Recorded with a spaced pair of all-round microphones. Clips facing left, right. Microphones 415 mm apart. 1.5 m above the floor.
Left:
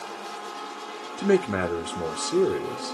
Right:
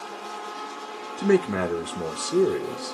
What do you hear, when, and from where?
1.2 s a man speaking: 5° right (ahead or behind), 0.6 m